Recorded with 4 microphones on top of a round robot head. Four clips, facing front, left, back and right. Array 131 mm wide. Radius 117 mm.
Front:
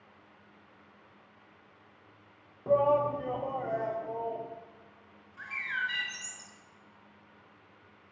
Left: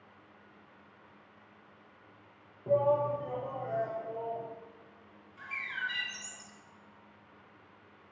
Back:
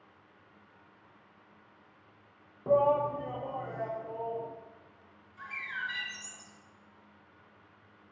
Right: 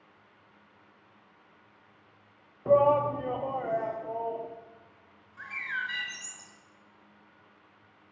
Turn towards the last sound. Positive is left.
turn(degrees=-45)